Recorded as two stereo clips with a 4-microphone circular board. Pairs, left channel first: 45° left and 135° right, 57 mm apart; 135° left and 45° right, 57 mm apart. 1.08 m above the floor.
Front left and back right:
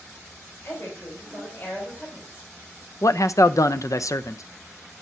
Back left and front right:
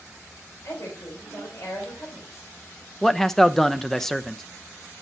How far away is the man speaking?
About 0.5 m.